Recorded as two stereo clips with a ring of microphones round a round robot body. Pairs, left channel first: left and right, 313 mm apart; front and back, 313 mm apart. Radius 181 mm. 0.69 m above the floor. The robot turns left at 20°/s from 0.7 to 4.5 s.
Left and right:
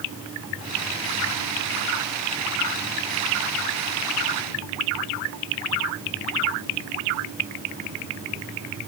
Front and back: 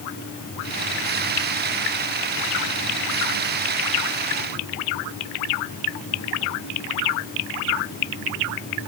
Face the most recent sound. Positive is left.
No sound to turn to.